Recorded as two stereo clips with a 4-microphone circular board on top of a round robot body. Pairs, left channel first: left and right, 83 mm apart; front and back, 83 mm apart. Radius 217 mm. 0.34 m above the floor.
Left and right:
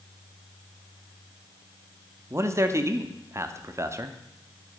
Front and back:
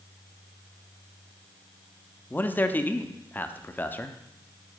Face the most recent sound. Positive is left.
turn(degrees=-55)